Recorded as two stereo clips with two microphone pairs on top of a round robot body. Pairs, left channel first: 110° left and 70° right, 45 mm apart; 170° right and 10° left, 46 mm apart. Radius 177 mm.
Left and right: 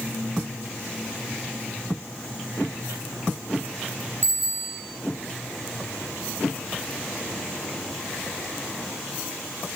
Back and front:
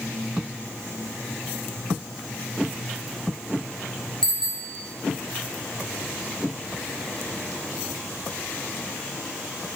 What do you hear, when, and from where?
4.2 s a bicycle bell: 95° right, 4.5 m